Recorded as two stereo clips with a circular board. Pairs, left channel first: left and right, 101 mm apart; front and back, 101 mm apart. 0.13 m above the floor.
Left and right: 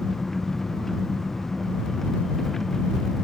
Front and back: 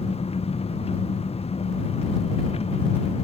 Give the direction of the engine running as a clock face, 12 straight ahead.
12 o'clock.